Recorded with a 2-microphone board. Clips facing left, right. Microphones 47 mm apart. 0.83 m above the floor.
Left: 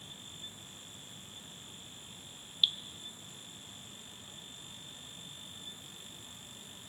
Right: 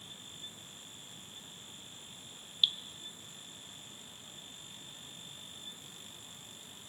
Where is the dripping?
Centre (ahead or behind), 0.7 m.